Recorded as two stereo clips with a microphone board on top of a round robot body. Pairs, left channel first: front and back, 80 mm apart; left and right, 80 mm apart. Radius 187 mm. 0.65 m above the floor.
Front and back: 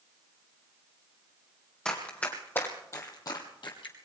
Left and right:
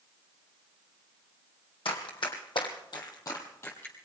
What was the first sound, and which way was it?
Running footsteps, 80° left.